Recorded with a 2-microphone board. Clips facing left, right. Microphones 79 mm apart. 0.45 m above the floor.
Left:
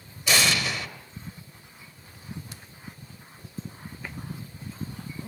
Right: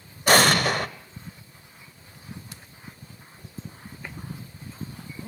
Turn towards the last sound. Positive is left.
turn(degrees=-50)  # may be behind; listen again after turning